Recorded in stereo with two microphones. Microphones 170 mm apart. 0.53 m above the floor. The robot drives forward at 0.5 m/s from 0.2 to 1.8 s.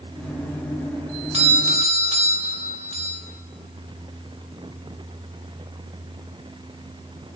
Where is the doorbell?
35° right (ahead or behind), 1.9 m.